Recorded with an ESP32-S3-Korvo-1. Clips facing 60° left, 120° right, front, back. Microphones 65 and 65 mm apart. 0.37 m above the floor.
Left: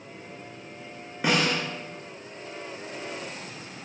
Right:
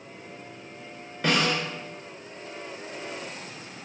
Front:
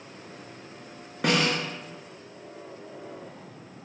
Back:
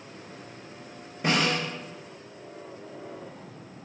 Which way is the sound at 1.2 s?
15° right.